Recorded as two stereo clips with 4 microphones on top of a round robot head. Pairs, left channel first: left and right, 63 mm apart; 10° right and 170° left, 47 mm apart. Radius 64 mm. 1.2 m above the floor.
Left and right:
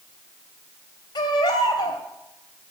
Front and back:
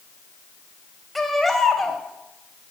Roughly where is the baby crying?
Left.